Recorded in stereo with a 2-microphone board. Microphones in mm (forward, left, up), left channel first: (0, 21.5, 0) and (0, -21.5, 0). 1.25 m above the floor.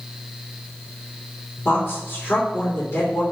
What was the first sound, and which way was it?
A woman speaking, 35° left (ahead or behind).